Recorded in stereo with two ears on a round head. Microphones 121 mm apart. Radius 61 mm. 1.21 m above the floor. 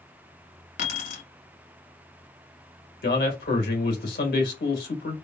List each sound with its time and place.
0.8 s keys jangling: 65° left (ahead or behind), 1.4 m
3.0 s a man speaking: 85° left, 1.6 m